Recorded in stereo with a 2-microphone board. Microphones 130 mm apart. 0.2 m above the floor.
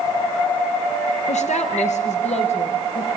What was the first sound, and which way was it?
A woman speaking, 70° left (ahead or behind).